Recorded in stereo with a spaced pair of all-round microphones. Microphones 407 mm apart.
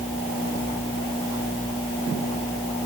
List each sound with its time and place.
Only background noise.